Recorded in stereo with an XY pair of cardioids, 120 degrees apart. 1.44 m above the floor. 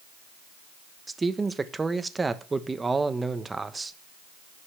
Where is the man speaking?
20° right, 1.0 m.